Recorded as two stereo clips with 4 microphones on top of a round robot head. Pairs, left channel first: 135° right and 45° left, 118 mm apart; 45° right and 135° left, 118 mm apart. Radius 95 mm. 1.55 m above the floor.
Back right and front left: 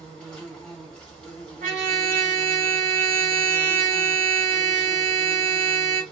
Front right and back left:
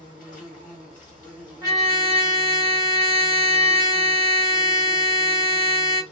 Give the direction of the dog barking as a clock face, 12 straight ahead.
No dog barking in this recording.